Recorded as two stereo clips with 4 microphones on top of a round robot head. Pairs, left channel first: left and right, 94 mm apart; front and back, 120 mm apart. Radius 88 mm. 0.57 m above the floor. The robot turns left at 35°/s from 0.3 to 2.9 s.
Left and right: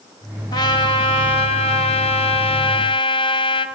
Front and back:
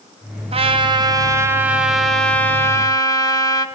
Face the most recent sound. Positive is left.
turn(degrees=60)